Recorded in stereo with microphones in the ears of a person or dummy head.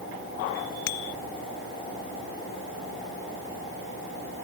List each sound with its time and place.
0.9 s a bicycle bell: 85° left